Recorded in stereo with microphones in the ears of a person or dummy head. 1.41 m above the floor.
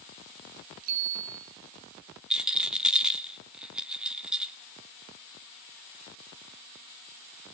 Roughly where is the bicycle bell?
Right.